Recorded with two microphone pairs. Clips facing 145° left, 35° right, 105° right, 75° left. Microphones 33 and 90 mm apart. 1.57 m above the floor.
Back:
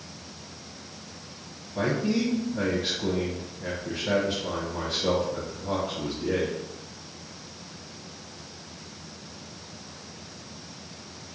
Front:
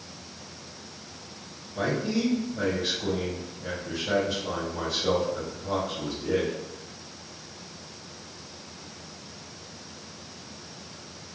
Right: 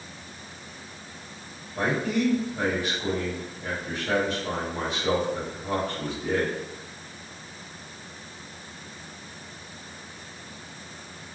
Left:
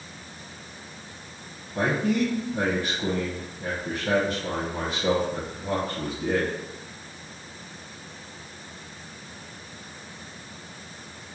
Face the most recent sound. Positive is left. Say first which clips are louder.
# back 1 dB, left 2 dB
turn(degrees=100)